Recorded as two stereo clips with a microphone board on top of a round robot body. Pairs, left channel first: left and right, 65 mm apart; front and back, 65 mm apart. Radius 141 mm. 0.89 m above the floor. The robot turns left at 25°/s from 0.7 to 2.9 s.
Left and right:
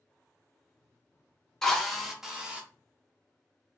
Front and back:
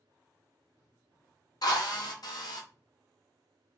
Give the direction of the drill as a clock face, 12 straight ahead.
12 o'clock.